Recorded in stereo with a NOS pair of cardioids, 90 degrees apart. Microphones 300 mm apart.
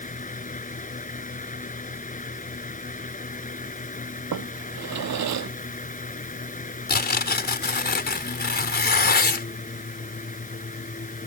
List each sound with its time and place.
0.0 s a fan: 25° left
4.3 s a drawer: 65° right
6.9 s tearing paper: 35° left